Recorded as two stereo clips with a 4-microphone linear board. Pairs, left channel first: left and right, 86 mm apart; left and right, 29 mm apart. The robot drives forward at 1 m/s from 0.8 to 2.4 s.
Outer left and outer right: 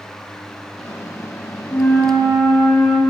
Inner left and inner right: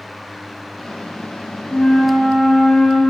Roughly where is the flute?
Left.